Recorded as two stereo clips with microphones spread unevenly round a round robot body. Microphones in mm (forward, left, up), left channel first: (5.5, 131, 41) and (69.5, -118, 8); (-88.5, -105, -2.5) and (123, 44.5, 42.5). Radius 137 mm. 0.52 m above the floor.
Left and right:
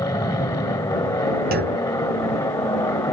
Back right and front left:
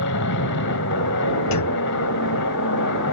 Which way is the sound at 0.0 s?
175° right.